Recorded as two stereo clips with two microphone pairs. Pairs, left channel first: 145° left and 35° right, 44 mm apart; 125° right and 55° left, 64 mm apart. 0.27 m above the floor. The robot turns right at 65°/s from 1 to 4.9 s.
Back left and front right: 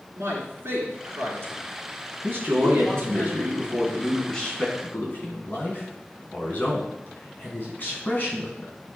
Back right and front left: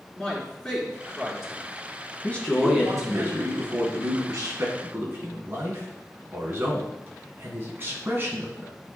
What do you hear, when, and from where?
0.1 s a man speaking: 55° right, 3 m; by 3.2 s 90° left, 3 m
2.2 s a man speaking: 65° right, 2.5 m; by 8.7 s 105° left, 2.5 m